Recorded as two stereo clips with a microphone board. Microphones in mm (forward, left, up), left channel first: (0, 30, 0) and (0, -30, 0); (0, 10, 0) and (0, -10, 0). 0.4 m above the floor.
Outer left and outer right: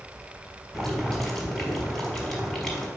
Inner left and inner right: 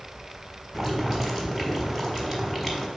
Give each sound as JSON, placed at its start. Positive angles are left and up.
{"t": 0.7, "sound": "boiling", "side_deg": 5, "distance_m": 3.5}